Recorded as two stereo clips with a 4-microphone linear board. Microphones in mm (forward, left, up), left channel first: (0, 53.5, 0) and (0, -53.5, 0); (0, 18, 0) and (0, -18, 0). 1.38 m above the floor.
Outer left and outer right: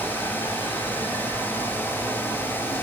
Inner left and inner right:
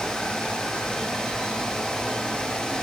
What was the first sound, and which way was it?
Only background noise.